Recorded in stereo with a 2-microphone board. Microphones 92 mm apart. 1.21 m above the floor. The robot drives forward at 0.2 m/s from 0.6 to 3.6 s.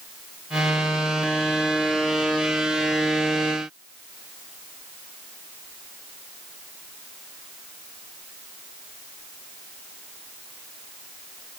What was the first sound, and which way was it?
Only background noise.